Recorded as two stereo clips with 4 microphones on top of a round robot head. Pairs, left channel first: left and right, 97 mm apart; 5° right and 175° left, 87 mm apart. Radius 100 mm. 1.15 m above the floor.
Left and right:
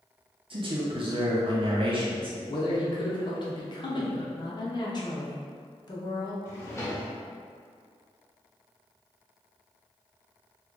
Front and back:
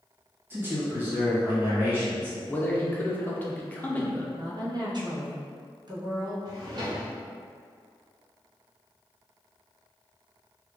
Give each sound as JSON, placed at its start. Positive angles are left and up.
{"t": 0.5, "sound": "a man speaking", "azimuth_deg": -120, "distance_m": 1.1}
{"t": 2.5, "sound": "a man speaking", "azimuth_deg": 65, "distance_m": 0.7}
{"t": 4.3, "sound": "a woman speaking", "azimuth_deg": 135, "distance_m": 1.0}
{"t": 6.5, "sound": "a drawer", "azimuth_deg": 145, "distance_m": 0.6}